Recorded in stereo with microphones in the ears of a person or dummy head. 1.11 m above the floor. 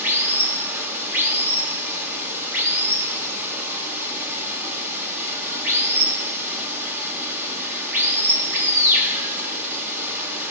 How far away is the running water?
About 1.2 m.